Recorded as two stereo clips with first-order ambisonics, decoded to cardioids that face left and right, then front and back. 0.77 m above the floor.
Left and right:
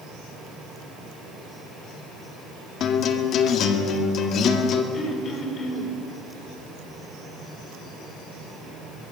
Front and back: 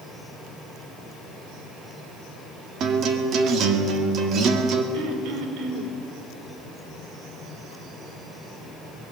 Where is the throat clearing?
155° left, 3.5 m.